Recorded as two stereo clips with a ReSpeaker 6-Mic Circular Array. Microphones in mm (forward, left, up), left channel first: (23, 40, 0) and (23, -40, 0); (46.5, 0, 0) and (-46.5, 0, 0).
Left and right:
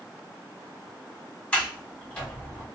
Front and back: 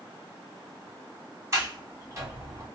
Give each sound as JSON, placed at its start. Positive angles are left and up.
{"t": 1.5, "sound": "a sliding door", "azimuth_deg": 155, "distance_m": 1.2}